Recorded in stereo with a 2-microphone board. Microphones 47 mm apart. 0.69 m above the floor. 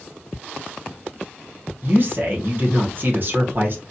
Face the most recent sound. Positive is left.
turn(degrees=-50)  # may be behind; listen again after turning